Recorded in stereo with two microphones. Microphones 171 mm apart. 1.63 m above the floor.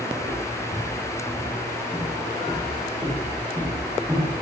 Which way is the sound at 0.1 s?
35° left (ahead or behind).